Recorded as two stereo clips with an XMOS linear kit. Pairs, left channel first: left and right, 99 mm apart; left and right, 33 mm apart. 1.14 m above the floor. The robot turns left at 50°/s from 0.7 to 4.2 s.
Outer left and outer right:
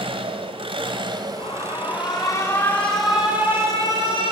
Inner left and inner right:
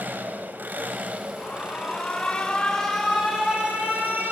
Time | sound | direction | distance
0.0 | an engine running | 100° right | 1.7 m
1.4 | an alarm | 85° left | 4.5 m